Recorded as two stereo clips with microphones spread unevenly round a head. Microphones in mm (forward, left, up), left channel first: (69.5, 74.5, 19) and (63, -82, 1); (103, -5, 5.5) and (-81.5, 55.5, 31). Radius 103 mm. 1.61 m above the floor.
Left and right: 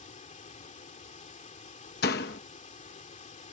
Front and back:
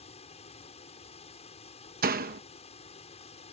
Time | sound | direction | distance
0.0 | running water | 45° left | ?
2.0 | a door slam | 120° left | ?